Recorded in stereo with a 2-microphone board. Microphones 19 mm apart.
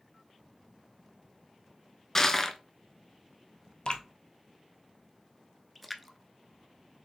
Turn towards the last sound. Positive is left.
turn(degrees=0)  # may be behind; listen again after turning